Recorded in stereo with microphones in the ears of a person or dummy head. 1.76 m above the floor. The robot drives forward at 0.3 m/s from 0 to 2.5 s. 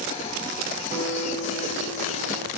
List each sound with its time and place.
0.9 s a guitar: 30° right (ahead or behind), 0.9 m; by 2.5 s 20° right (ahead or behind), 1.3 m